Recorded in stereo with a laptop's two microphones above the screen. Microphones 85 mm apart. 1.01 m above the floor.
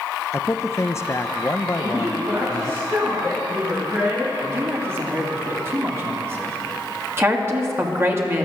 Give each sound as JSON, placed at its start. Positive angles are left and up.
{"t": 0.3, "sound": "a man speaking", "side_deg": 30, "distance_m": 0.7}
{"t": 1.7, "sound": "a woman speaking", "side_deg": -50, "distance_m": 7.0}
{"t": 4.4, "sound": "a man speaking", "side_deg": -30, "distance_m": 2.5}
{"t": 7.2, "sound": "a woman speaking", "side_deg": -30, "distance_m": 1.9}